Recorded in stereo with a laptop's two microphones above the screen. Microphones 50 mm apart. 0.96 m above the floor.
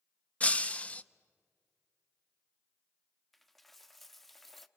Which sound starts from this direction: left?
Breaking glass, at 0.4 s.